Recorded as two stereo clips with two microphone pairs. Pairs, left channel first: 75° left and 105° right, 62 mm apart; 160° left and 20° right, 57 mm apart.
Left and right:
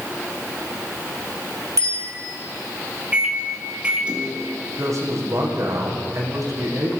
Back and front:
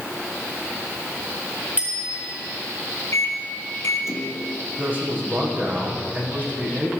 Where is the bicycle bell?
80° right, 8.5 m.